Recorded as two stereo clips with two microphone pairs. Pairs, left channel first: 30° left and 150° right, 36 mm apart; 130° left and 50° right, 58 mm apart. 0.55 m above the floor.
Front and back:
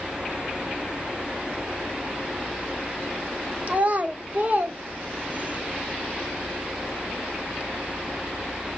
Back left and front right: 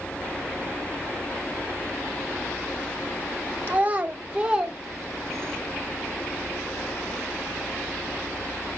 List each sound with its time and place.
3.7 s a child speaking: 110° right, 1.3 m; by 5.6 s 165° right, 0.7 m